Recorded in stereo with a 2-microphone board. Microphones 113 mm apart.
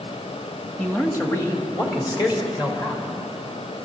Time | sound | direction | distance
0.8 | a man speaking | 15° left (ahead or behind) | 1.9 m